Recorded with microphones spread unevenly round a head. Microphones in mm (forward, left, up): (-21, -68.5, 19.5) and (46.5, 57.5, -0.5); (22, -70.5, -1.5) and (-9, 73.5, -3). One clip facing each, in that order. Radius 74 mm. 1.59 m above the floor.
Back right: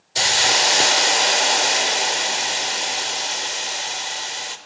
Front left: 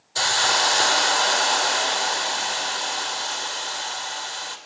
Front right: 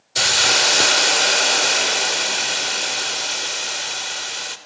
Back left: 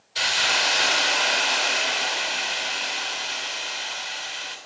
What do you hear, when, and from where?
0.1 s a hiss: 60° right, 2 m